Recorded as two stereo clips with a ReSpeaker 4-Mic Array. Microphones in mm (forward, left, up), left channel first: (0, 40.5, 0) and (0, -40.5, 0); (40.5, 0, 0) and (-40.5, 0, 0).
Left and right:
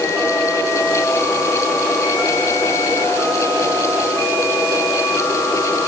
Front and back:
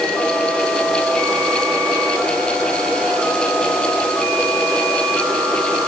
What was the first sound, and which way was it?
Only background noise.